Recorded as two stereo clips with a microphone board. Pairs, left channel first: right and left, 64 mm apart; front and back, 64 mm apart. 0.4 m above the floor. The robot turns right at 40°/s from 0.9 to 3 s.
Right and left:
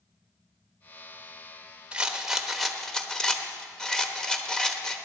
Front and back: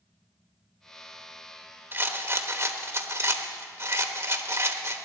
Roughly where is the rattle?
Behind left.